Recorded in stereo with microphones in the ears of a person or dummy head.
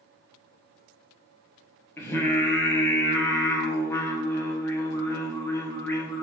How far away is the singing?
About 0.9 m.